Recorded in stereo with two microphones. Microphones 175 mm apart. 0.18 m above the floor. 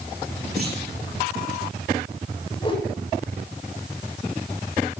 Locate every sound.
0.6 s a clunk: 65° right (ahead or behind), 5.5 m
2.6 s a whoosh: 30° left (ahead or behind), 9 m